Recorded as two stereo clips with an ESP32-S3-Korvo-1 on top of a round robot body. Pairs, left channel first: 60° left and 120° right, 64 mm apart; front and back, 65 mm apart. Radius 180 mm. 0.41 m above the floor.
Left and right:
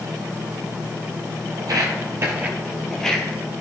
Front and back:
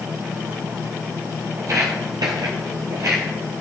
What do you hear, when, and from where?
1.6 s footsteps: 140° right, 1.0 m; by 3.2 s 135° left, 0.8 m